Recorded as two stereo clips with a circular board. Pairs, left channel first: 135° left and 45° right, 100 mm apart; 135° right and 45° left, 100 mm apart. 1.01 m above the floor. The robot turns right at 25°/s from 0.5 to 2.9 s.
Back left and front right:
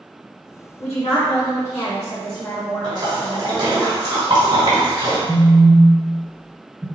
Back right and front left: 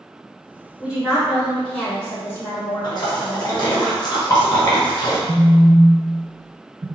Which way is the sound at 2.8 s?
90° right.